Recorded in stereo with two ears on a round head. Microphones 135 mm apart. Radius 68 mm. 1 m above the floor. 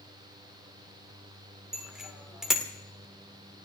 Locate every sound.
1.7 s a bicycle bell: 5° right (ahead or behind), 2 m